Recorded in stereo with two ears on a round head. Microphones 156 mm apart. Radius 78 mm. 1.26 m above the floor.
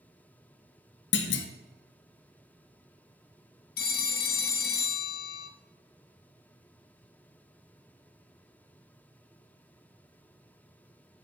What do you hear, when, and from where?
1.1 s a clunk: 75° left (ahead or behind), 0.9 m
3.8 s a phone ringing: 55° left (ahead or behind), 1.0 m